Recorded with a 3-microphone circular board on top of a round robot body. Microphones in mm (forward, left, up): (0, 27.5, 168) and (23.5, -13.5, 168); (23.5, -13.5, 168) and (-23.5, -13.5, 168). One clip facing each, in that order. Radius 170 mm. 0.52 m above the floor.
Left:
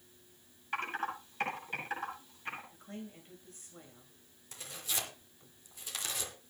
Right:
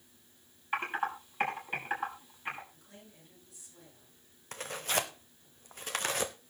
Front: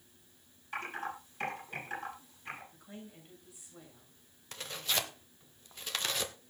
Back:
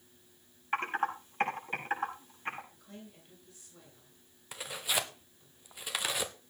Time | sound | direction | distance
0.7 | typing on a keyboard | 130° right | 7 m
2.7 | a woman speaking | 75° left | 8 m
4.5 | tearing paper | 100° right | 0.8 m